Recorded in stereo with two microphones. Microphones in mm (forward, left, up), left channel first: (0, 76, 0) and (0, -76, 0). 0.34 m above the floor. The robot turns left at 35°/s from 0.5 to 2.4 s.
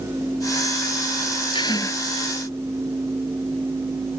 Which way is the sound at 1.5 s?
35° left (ahead or behind).